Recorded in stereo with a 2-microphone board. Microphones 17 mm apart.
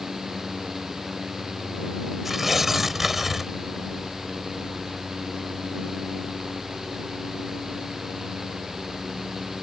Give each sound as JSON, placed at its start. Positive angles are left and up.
{"t": 2.2, "sound": "tearing paper", "side_deg": -15}